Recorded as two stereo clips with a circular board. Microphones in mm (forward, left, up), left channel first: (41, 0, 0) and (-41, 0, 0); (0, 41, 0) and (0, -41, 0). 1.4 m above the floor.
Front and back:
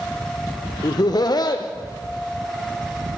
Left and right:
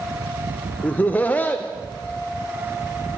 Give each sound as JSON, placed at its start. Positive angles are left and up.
{"t": 0.8, "sound": "laughter", "azimuth_deg": 20, "distance_m": 0.5}